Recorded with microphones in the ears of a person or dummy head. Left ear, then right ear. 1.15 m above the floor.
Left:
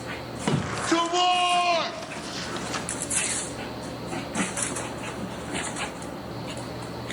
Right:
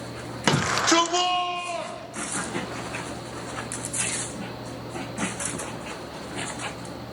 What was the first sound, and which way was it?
A shout, 50° right (ahead or behind).